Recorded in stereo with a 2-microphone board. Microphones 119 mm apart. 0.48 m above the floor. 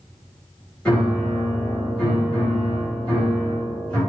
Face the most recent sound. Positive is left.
turn(degrees=10)  # may be behind; listen again after turning